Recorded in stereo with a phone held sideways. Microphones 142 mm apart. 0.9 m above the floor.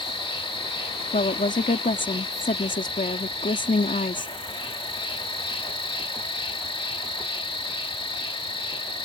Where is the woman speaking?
70° left (ahead or behind).